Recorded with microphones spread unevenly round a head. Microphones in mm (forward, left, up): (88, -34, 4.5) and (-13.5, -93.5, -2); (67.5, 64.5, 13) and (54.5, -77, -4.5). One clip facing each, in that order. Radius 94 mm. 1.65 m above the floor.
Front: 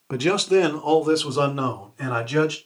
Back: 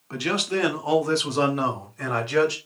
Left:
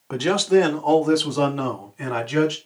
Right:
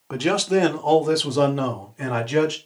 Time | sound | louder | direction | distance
0.1 | a man speaking | front 7 dB, left 3 dB | 5° right | 0.5 m